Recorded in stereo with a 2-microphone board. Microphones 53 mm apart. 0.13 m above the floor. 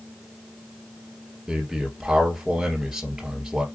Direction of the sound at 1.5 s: 10° right (ahead or behind).